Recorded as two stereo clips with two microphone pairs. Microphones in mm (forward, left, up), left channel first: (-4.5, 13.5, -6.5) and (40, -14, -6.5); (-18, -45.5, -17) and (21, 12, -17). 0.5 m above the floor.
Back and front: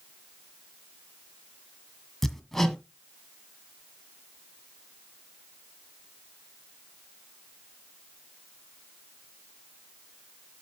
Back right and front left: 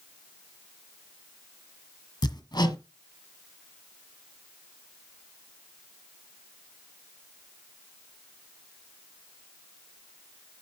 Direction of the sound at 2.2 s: 130° right.